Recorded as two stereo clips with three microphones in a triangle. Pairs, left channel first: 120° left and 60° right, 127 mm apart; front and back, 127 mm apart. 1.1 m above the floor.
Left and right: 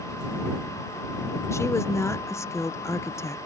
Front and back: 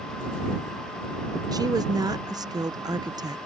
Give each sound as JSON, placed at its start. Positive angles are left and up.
{"t": 1.5, "sound": "a woman speaking", "azimuth_deg": 165}